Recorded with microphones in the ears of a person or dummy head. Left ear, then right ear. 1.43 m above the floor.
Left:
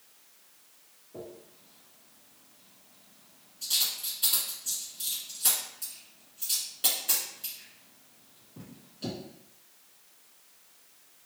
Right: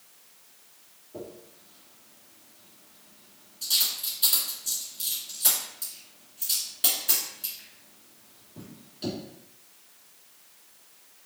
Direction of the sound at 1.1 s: 5° right (ahead or behind).